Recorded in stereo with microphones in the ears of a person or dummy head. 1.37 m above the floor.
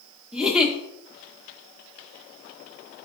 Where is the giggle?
5° right (ahead or behind), 1.1 m.